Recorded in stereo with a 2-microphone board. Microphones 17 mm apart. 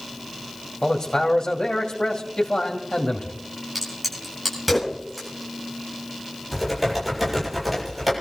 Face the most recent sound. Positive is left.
turn(degrees=0)  # may be behind; listen again after turning